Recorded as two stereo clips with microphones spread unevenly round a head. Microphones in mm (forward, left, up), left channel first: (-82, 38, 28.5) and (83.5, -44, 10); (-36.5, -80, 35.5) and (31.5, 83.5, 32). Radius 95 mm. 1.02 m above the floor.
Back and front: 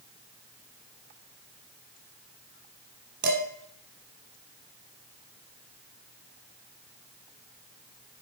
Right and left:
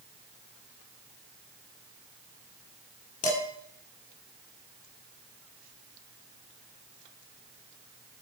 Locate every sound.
3.2 s dishes clattering: 60° right, 1.7 m